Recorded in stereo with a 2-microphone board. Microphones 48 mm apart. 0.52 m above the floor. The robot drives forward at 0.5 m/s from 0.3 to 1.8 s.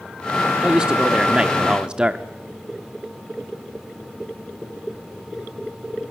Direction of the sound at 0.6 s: 15° right (ahead or behind).